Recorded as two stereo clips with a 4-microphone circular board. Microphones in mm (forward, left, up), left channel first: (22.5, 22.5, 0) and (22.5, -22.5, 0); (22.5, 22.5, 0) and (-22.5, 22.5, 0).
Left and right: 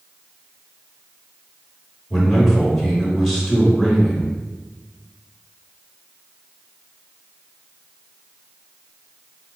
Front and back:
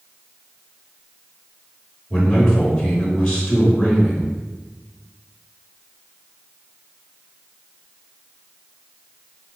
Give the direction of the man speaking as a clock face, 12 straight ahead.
12 o'clock.